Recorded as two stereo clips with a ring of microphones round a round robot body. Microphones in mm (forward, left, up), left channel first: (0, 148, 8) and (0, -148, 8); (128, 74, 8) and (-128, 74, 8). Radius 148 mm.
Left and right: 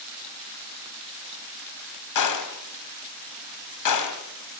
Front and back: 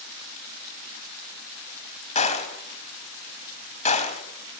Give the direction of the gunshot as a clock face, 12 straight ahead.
10 o'clock.